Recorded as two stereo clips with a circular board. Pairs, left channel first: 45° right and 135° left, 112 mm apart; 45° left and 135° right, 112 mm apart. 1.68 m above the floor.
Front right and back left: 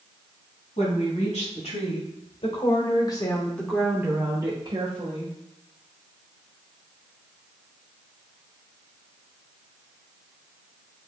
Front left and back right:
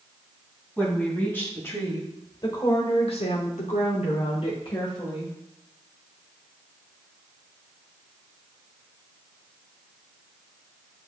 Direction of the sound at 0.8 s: 30° right.